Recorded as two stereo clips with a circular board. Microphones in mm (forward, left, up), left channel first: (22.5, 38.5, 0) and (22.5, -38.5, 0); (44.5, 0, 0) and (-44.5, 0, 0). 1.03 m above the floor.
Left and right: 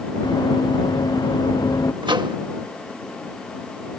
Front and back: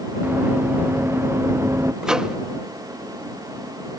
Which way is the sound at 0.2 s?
110° left.